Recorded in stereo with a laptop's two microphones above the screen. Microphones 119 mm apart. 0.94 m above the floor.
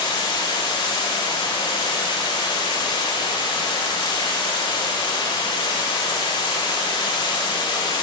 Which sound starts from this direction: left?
Running water, at 0.0 s.